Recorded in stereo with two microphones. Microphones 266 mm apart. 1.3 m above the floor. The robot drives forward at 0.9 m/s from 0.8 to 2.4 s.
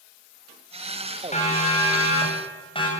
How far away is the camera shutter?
No camera shutter in this recording.